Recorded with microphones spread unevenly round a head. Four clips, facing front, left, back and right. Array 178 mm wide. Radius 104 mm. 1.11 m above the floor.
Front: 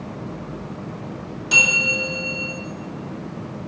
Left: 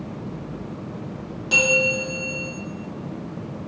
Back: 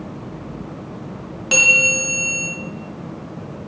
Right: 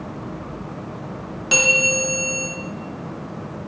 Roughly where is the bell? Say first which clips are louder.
Even, back 3 dB; right.